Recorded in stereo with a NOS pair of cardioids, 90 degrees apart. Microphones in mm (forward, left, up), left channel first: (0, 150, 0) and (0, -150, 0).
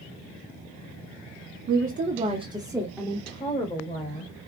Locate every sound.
1.7 s a woman speaking: 50° right, 1.0 m; by 4.3 s 35° left, 1.8 m